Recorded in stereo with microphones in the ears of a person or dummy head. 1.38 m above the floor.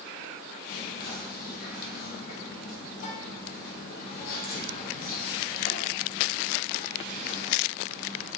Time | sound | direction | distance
0.7 | whispering | 50° left (ahead or behind) | 0.9 m